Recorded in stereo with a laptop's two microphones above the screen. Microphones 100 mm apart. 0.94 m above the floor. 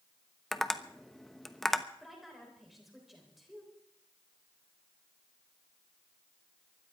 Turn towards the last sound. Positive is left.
turn(degrees=0)  # may be behind; listen again after turning